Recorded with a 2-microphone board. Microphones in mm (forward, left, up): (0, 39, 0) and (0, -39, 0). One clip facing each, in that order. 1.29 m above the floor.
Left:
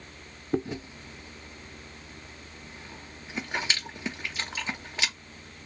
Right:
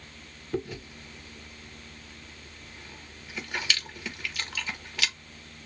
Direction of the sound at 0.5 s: 25° left (ahead or behind).